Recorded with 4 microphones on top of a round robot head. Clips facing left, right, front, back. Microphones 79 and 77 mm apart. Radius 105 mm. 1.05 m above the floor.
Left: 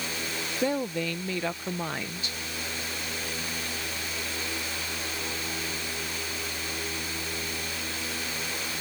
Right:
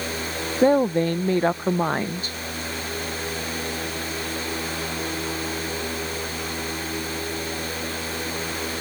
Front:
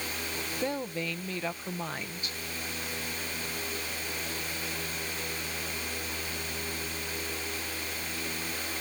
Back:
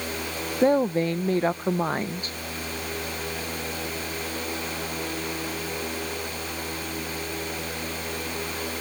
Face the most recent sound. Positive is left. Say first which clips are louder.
# right 11 dB, back 14 dB
turn(degrees=-135)